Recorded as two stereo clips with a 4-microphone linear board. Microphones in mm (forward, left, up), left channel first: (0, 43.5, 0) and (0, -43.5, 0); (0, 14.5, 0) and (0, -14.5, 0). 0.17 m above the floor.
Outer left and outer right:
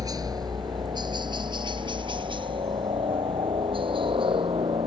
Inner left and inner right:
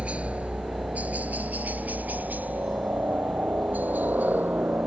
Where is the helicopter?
45° right (ahead or behind); by 4.9 s 75° right (ahead or behind).